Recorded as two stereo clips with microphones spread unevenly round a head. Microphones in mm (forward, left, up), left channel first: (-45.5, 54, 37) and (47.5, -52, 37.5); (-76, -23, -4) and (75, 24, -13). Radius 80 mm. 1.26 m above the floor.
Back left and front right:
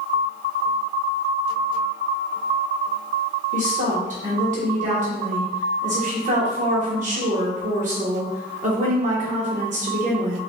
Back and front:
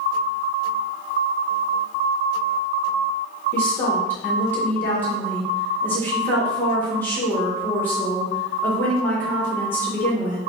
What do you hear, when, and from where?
3.5 s a woman speaking: 85° right, 1.5 m